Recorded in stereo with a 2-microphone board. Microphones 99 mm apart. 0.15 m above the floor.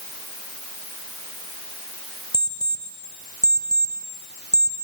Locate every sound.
2.3 s an alarm clock: 40° left (ahead or behind), 2.0 m